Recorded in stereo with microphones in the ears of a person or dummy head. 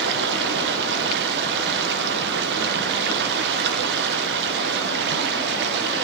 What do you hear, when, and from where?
0.0 s running water: 70° right (ahead or behind), 1.3 m